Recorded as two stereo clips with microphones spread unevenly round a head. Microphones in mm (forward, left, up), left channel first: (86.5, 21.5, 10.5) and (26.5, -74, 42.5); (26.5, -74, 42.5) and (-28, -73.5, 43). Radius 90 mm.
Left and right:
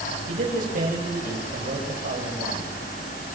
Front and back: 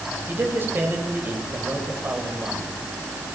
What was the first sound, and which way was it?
A man speaking, 130° right.